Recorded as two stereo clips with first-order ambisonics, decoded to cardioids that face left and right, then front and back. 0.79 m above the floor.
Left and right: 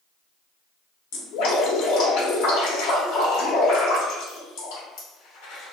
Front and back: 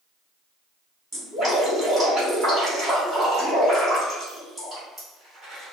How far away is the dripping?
About 1.4 m.